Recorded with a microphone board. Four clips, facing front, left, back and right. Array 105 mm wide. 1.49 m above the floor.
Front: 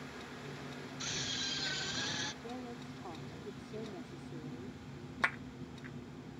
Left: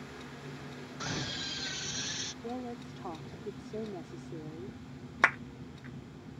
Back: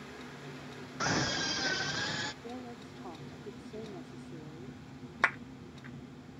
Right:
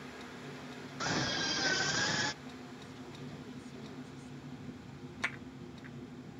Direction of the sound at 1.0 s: 170° right.